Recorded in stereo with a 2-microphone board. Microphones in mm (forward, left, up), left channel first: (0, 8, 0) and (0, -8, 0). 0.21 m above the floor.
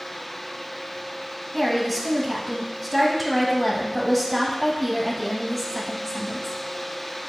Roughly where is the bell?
No bell in this recording.